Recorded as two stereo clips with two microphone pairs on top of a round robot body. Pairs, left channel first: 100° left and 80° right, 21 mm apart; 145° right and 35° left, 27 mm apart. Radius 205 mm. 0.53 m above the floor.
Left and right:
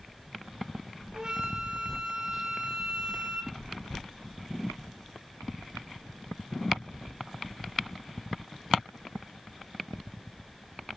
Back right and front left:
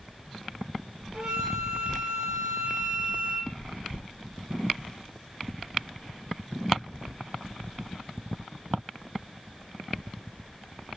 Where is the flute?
30° right, 3 m.